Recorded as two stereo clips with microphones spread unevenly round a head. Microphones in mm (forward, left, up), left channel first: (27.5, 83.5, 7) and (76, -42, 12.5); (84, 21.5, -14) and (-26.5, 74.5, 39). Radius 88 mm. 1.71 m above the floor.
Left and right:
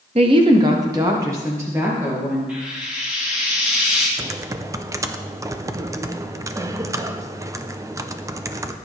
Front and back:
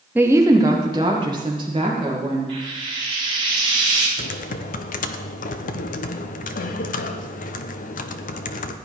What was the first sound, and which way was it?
A woman speaking, 125° right.